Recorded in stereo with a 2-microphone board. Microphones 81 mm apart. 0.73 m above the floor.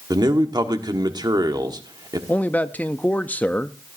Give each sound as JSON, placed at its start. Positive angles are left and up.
{"t": 0.1, "sound": "a man speaking", "side_deg": -55, "distance_m": 1.2}
{"t": 2.3, "sound": "a man speaking", "side_deg": 20, "distance_m": 0.5}